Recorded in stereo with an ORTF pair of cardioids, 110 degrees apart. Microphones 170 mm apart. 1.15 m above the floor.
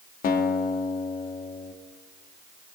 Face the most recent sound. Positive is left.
turn(degrees=55)